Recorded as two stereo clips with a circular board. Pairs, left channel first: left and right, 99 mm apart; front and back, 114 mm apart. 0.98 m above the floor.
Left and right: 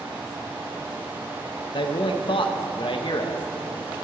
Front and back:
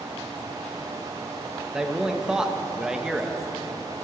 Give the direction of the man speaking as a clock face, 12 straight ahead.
9 o'clock.